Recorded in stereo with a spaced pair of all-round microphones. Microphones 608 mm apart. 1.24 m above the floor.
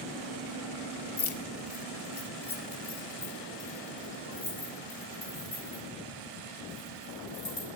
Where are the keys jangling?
45° left (ahead or behind), 0.8 m; by 7.7 s 60° left (ahead or behind), 6 m.